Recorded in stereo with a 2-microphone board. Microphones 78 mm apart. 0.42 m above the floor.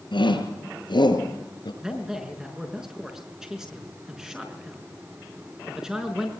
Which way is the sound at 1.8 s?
5° right (ahead or behind).